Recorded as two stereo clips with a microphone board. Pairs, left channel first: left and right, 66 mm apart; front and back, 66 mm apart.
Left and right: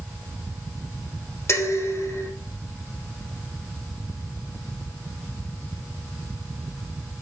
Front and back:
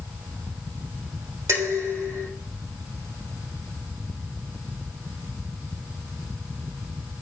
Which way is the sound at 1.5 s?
140° left.